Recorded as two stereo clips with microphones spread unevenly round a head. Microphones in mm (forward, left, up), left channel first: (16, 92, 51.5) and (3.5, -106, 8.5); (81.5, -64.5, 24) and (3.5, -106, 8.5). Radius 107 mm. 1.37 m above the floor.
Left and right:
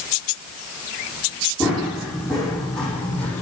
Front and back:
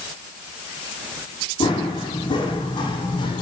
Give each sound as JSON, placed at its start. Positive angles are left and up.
{"t": 1.6, "sound": "running footsteps", "azimuth_deg": -5, "distance_m": 5.0}